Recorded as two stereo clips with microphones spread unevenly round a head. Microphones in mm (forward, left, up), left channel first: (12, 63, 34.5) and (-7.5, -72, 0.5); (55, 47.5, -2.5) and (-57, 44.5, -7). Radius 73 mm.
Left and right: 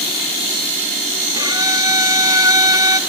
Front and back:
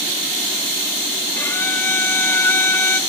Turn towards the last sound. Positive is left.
turn(degrees=-65)